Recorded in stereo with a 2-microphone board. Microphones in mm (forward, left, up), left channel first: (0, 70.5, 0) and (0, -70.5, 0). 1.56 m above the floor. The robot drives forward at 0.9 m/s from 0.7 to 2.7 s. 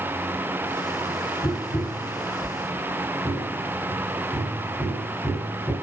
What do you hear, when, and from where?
1.4 s tapping: 50° left (ahead or behind), 0.8 m; by 5.7 s 20° left (ahead or behind), 1.7 m